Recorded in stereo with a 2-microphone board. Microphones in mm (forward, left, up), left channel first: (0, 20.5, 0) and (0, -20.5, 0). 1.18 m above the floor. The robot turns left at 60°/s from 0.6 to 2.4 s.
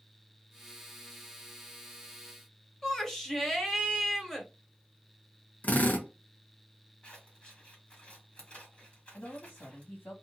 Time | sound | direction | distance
2.8 | a shout | 10° left (ahead or behind) | 1.1 m
5.6 | a drill | 45° left (ahead or behind) | 0.9 m
7.0 | scissors | 30° left (ahead or behind) | 1.6 m
9.1 | a man speaking | 65° left (ahead or behind) | 1.6 m